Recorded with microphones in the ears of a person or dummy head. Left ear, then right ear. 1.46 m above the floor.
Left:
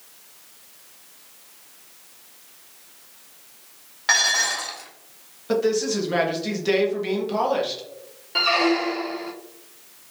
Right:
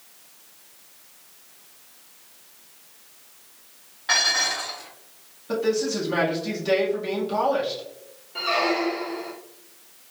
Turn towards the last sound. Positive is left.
turn(degrees=50)  # may be behind; listen again after turning